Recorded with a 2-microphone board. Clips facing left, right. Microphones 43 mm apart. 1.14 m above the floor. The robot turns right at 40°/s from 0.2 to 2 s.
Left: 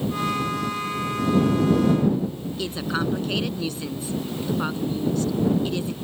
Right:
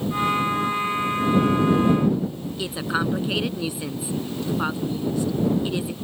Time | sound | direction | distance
2.6 | a woman speaking | 15° right (ahead or behind) | ?